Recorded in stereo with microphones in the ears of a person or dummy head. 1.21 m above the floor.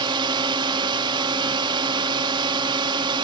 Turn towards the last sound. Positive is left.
turn(degrees=-25)  # may be behind; listen again after turning